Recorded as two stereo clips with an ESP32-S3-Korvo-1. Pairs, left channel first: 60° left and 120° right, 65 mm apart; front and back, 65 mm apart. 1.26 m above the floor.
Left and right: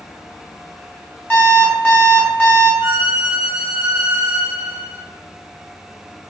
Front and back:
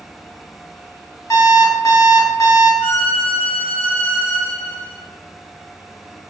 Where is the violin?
105° right, 1.4 m.